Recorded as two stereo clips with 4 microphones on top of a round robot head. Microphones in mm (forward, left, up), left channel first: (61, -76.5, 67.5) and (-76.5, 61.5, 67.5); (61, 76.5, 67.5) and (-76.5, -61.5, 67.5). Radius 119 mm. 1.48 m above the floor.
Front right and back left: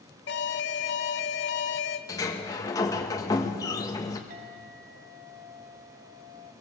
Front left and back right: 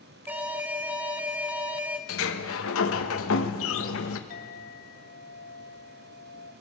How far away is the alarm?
About 0.7 m.